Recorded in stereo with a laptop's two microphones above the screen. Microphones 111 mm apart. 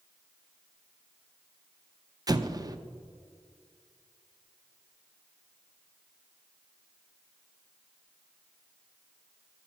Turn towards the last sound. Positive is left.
turn(degrees=-35)  # may be behind; listen again after turning